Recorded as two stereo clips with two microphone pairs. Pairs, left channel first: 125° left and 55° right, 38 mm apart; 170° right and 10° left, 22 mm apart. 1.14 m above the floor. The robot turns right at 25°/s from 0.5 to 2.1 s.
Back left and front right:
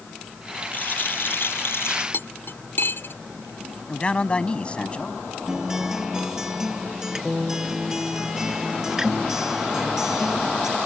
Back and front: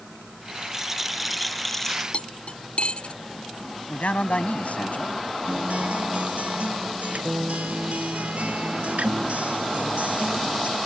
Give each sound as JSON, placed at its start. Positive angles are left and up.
{"t": 0.7, "sound": "a rattle", "azimuth_deg": 85}
{"t": 2.1, "sound": "cutlery clinking", "azimuth_deg": 155}
{"t": 3.9, "sound": "a man speaking", "azimuth_deg": -170}
{"t": 5.5, "sound": "a guitar", "azimuth_deg": 25}